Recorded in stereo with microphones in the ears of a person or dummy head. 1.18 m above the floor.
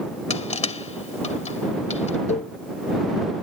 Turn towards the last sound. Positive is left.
turn(degrees=35)  # may be behind; listen again after turning